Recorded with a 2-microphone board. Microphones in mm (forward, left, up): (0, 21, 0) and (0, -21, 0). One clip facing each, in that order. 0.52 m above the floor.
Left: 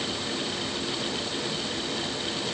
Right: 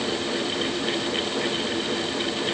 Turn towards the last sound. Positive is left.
No sound to turn to.